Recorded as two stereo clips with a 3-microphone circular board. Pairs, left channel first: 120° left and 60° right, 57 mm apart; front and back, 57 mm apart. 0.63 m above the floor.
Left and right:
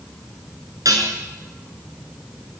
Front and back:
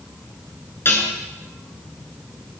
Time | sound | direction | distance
0.8 | dishes clattering | 50° right | 6.5 m